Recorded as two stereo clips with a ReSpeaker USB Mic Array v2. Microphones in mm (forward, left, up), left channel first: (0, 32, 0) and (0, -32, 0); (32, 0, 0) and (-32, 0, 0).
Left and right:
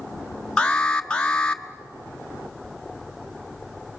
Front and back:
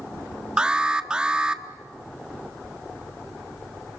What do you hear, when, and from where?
0.6 s an alarm: 130° left, 1.1 m